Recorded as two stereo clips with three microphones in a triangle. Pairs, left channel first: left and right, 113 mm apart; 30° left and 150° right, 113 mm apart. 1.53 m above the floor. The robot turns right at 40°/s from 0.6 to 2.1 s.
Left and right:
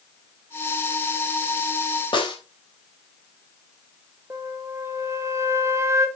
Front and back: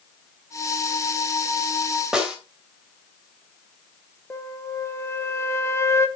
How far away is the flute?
About 1.2 m.